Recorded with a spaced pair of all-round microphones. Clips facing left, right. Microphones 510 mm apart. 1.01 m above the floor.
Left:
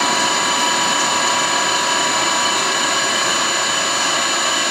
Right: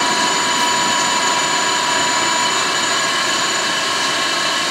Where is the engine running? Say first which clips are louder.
Even; 45° right (ahead or behind), 5 m.